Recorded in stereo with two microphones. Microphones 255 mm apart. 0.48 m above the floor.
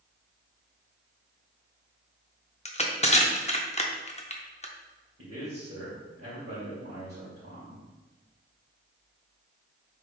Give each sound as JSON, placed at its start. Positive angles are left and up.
{"t": 2.6, "sound": "crushing", "side_deg": 25, "distance_m": 0.6}
{"t": 5.2, "sound": "a man speaking", "side_deg": -60, "distance_m": 1.7}